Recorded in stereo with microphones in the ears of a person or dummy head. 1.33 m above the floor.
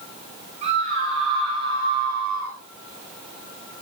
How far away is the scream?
About 8 m.